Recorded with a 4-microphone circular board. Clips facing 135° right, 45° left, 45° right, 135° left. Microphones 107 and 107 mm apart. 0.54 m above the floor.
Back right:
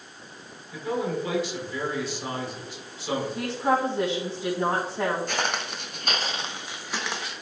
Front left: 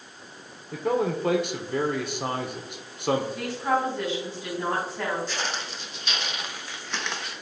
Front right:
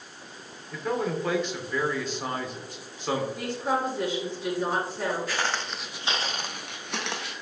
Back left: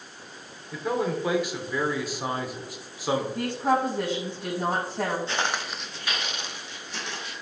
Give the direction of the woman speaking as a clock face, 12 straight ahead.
7 o'clock.